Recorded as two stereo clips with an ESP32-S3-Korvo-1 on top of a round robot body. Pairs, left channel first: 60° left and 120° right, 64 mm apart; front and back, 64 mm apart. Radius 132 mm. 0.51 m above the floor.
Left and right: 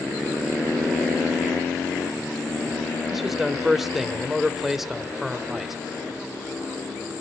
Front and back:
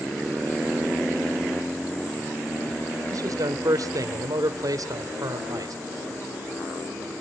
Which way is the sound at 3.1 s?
155° left.